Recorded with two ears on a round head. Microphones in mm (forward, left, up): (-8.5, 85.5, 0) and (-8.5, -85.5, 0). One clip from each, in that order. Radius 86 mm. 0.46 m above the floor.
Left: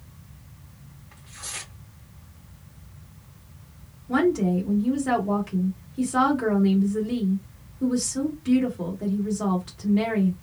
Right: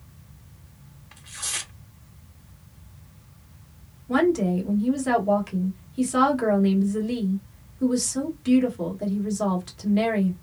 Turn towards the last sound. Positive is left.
turn(degrees=-30)  # may be behind; listen again after turning